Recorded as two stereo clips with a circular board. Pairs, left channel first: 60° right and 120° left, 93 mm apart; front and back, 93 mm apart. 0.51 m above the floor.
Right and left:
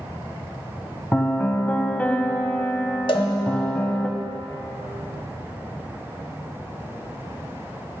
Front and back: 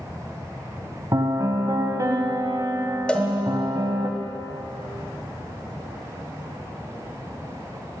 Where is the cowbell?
80° right, 0.8 m.